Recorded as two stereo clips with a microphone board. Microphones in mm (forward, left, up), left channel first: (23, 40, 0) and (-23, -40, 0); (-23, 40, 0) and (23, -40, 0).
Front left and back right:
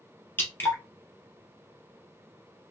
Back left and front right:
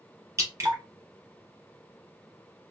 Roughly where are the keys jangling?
No keys jangling in this recording.